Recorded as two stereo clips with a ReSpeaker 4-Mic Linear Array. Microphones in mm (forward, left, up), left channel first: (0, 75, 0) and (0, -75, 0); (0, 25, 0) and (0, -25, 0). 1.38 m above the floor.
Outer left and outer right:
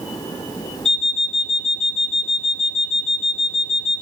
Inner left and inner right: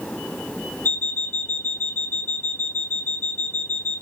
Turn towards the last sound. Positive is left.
turn(degrees=40)  # may be behind; listen again after turning